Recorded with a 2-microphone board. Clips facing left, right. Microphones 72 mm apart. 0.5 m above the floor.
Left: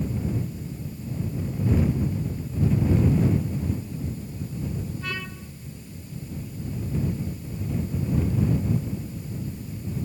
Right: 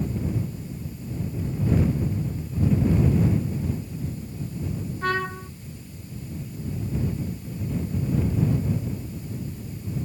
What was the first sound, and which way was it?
A trumpet, 55° right (ahead or behind).